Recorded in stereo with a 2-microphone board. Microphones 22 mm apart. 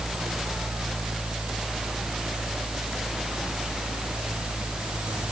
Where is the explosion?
No explosion in this recording.